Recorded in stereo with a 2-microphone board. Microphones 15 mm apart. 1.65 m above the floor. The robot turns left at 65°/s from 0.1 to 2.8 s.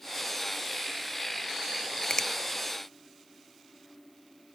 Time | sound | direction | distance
2.1 | a finger snap | 50° left (ahead or behind) | 0.7 m